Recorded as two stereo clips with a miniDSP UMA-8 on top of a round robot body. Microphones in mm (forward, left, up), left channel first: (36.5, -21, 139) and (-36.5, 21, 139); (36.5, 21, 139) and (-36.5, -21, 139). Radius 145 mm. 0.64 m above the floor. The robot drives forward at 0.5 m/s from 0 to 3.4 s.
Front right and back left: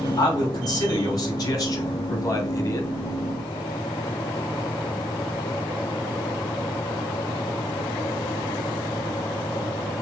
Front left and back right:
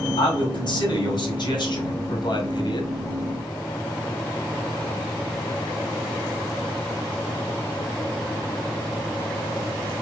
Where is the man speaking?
10° left, 2.5 m; by 2.9 s 20° left, 1.4 m.